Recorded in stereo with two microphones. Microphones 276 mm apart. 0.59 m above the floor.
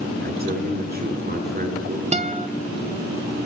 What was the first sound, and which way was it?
A man speaking, 35° right (ahead or behind).